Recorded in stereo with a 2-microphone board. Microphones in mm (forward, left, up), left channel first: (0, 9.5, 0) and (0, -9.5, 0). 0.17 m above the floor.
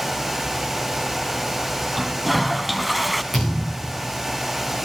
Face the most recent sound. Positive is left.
turn(degrees=15)  # may be behind; listen again after turning